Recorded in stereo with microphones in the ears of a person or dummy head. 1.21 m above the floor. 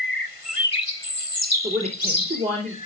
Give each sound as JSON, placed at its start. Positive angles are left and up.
{"t": 1.6, "sound": "a woman speaking", "side_deg": -50, "distance_m": 2.5}